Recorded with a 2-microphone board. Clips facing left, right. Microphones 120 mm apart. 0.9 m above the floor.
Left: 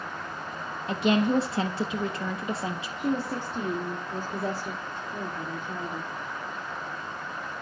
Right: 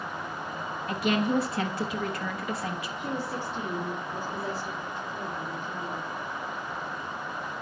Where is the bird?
I don't hear a bird.